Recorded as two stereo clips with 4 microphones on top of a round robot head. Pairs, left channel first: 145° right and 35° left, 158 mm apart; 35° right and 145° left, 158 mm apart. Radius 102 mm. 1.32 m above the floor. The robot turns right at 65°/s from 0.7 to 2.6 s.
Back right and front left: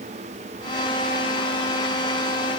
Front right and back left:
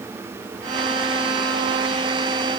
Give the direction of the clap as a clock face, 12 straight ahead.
I don't hear a clap.